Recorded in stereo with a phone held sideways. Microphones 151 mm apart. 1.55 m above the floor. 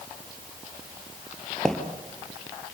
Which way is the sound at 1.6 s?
5° left (ahead or behind).